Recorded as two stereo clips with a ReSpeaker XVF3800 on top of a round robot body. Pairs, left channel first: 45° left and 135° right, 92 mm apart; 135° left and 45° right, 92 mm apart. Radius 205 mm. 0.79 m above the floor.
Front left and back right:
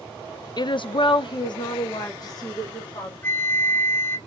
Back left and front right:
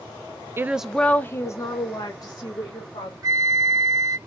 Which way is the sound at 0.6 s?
15° left.